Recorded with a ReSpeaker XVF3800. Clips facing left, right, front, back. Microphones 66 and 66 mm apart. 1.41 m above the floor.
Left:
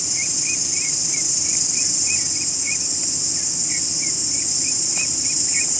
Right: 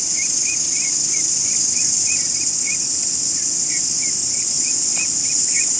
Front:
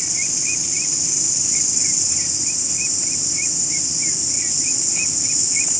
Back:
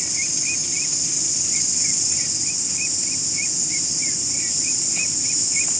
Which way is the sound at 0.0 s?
80° right.